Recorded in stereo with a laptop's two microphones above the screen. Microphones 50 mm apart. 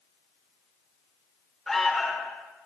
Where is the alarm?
5° left (ahead or behind), 4 m.